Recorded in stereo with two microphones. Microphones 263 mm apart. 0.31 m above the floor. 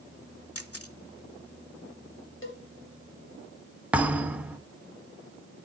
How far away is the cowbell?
About 1.3 m.